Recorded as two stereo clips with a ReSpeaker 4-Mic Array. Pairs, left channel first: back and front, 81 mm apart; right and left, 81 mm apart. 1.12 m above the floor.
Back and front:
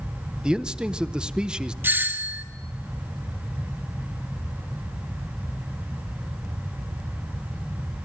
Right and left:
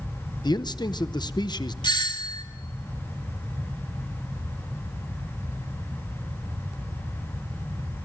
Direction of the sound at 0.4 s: 80° right.